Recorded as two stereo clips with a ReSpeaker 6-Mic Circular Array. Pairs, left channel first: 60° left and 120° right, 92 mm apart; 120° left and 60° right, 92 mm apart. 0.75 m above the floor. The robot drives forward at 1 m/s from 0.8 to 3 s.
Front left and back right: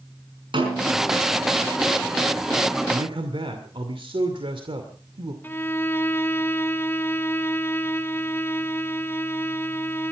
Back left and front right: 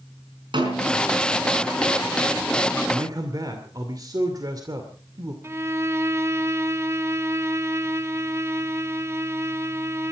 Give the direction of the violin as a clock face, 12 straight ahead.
12 o'clock.